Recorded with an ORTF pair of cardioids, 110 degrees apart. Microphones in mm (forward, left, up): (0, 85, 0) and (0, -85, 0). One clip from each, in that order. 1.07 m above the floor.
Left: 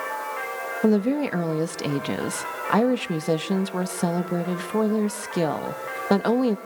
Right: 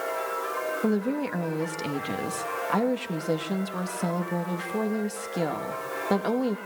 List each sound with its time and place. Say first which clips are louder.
0.8 s a woman speaking: left 5 dB; 30° left, 1.4 m